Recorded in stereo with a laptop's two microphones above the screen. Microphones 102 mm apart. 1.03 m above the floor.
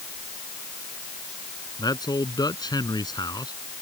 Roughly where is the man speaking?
Left.